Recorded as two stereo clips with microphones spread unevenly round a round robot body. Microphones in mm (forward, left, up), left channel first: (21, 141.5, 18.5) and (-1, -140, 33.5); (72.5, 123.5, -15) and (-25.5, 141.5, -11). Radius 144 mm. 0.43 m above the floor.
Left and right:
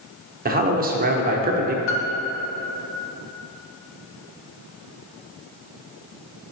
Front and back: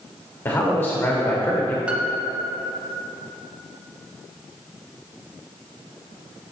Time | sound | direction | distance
0.5 | a man speaking | 60° right | 0.9 m
1.9 | a piano | 90° left | 1.2 m